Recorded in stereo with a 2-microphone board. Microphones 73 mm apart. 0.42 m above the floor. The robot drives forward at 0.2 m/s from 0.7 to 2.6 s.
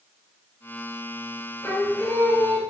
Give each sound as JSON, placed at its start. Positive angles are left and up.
{"t": 1.6, "sound": "singing", "side_deg": 40, "distance_m": 1.2}